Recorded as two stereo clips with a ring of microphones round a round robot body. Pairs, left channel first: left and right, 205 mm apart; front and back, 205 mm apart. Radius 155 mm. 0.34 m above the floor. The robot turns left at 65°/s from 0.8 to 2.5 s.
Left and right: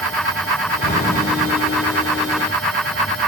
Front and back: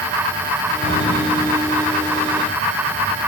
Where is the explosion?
45° left, 5.5 m; by 1.7 s 10° right, 5.5 m.